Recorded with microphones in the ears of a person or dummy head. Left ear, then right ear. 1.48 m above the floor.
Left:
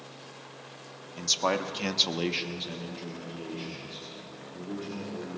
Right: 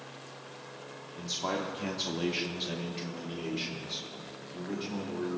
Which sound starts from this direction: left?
A man speaking, at 1.1 s.